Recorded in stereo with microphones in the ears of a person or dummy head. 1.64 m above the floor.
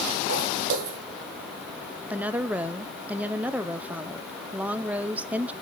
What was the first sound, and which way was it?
Footsteps, 55° right (ahead or behind).